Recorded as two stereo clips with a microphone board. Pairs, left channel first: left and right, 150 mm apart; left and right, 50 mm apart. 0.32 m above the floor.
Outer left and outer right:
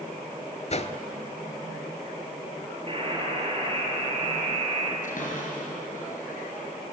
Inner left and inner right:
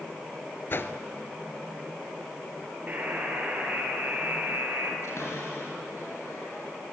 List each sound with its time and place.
0.7 s a whoosh: 50° left (ahead or behind), 0.9 m
2.9 s a buzzer: 35° right (ahead or behind), 4.5 m
5.0 s a cupboard door: 60° left (ahead or behind), 5 m